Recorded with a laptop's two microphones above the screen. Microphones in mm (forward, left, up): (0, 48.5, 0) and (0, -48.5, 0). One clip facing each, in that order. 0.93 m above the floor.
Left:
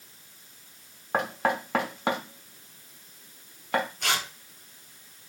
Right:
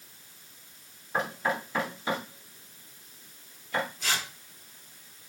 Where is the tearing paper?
65° left (ahead or behind), 0.9 m.